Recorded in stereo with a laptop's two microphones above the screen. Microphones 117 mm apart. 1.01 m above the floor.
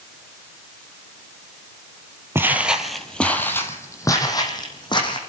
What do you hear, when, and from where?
2.4 s footsteps: 20° right (ahead or behind), 1.2 m; by 5.2 s 40° left (ahead or behind), 2.5 m